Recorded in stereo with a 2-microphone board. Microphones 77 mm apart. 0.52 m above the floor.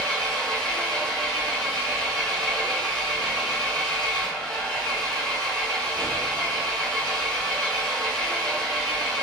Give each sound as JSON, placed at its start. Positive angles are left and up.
{"t": 0.0, "sound": "an engine running", "side_deg": 5, "distance_m": 1.1}